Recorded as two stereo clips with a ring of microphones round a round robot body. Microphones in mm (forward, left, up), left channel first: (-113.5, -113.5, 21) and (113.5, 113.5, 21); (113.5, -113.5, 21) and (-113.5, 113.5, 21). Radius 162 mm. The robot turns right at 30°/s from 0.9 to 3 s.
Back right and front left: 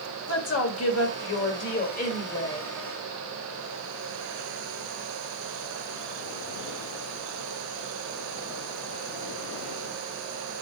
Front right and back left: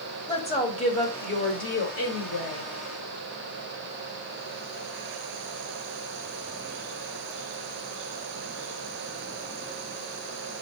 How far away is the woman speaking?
About 1.9 m.